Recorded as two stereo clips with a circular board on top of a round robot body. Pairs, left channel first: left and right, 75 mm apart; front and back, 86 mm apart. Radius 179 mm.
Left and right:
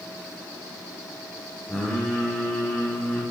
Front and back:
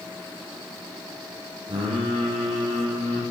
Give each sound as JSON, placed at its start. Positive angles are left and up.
{"t": 1.7, "sound": "singing", "azimuth_deg": 170, "distance_m": 0.5}